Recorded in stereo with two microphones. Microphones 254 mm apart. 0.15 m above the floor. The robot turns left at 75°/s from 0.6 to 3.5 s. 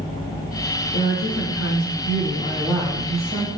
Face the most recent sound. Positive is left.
turn(degrees=-50)